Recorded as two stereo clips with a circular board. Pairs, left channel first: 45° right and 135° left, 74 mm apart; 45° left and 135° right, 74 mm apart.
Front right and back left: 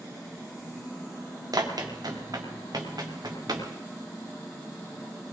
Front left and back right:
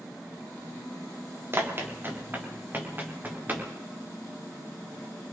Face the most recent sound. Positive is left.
turn(degrees=160)